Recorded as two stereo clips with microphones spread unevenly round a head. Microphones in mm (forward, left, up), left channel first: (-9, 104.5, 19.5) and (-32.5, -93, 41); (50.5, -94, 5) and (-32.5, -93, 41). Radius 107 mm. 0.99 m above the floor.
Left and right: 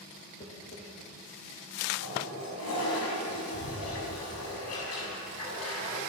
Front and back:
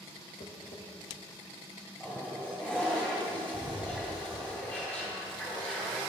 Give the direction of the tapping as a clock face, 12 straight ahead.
11 o'clock.